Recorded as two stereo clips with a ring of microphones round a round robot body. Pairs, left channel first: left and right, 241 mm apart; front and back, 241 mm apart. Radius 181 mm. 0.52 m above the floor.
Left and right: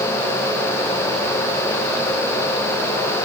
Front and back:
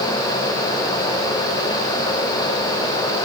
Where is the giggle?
No giggle in this recording.